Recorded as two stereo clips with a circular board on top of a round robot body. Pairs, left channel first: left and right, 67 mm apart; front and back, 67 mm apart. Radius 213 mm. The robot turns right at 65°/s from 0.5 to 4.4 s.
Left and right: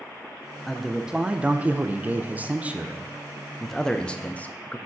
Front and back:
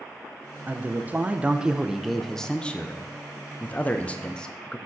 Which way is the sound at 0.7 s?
175° left.